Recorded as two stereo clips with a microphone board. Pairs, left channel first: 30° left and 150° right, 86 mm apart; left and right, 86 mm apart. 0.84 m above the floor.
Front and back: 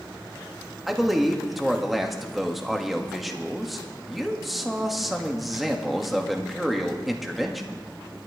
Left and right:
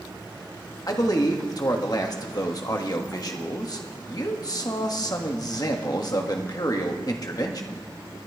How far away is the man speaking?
About 1.4 m.